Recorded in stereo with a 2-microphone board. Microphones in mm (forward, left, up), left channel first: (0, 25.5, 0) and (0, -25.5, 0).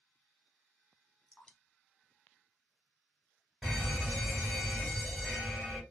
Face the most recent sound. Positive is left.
turn(degrees=-15)  # may be behind; listen again after turning